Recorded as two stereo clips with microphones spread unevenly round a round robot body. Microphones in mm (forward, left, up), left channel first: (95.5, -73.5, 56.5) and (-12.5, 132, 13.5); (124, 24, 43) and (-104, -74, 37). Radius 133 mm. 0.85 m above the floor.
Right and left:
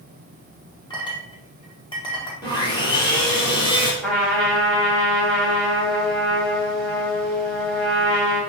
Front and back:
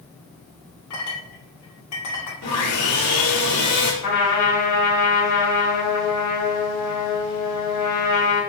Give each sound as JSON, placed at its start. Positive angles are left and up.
{"t": 0.9, "sound": "a clink", "azimuth_deg": 10, "distance_m": 1.8}
{"t": 2.4, "sound": "sawing", "azimuth_deg": 5, "distance_m": 3.0}
{"t": 4.0, "sound": "a trumpet", "azimuth_deg": 25, "distance_m": 2.5}